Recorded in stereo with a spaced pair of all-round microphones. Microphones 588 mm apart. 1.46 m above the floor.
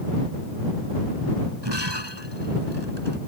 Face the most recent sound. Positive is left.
turn(degrees=-40)  # may be behind; listen again after turning